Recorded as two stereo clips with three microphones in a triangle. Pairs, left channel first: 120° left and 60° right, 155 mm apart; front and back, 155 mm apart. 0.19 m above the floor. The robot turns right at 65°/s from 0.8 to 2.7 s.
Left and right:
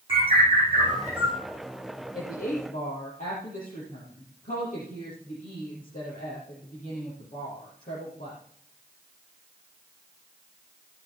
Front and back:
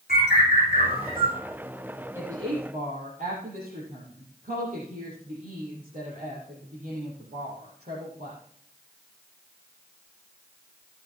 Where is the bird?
5° right, 8.5 m; by 1.4 s 30° left, 8.5 m.